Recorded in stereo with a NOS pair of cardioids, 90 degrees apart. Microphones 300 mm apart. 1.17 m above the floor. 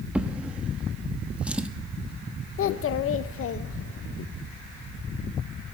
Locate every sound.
0.1 s a drawer: 5° right, 1.0 m
2.6 s a child speaking: 50° left, 0.6 m